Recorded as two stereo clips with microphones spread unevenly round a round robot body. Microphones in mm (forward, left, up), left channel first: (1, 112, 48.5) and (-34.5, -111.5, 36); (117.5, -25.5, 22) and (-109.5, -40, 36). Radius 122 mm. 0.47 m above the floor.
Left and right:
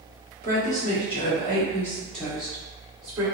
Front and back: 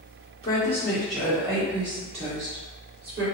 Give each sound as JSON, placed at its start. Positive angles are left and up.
{"t": 0.4, "sound": "a woman speaking", "azimuth_deg": 60, "distance_m": 1.2}